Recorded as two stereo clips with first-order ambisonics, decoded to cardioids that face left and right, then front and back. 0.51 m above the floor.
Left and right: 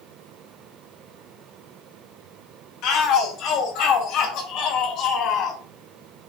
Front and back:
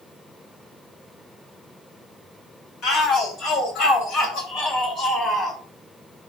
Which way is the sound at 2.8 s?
55° left.